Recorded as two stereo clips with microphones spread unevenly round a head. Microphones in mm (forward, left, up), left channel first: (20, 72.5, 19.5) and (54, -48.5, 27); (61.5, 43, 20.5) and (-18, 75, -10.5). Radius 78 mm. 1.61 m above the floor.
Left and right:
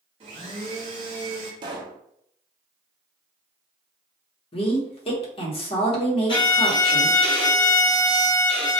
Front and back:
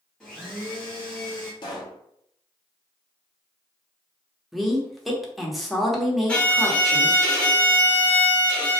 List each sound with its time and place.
0.2 s a blender: 80° right, 0.7 m
1.6 s a pop: 25° right, 0.6 m
4.5 s a woman speaking: 65° left, 0.9 m
6.3 s a violin: 55° left, 1.0 m